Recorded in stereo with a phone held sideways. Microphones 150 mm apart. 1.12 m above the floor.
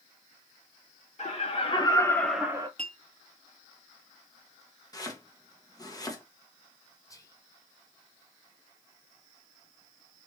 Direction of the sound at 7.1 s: 25° left (ahead or behind).